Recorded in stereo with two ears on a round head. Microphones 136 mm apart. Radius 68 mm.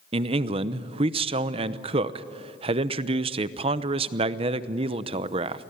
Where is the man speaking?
35° right (ahead or behind), 0.8 m.